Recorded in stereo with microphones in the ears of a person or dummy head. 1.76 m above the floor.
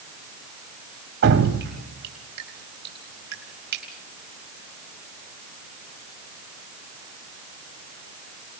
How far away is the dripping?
About 4 m.